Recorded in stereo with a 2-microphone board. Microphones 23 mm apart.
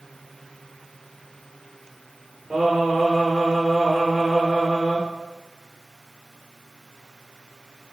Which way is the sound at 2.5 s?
10° right (ahead or behind).